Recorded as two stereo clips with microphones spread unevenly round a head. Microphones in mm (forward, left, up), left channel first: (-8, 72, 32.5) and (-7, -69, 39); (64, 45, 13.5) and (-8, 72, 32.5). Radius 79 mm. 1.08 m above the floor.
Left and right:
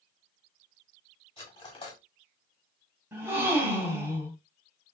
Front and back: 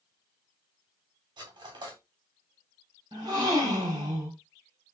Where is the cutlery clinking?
150° left, 1.9 m.